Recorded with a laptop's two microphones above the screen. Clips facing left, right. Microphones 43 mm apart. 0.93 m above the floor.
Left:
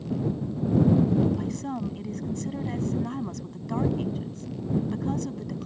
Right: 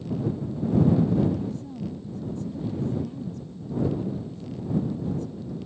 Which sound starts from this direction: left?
A woman speaking, at 1.4 s.